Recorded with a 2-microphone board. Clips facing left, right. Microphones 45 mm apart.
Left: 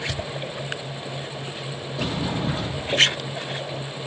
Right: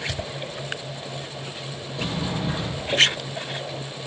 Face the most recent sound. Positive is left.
turn(degrees=10)  # may be behind; listen again after turning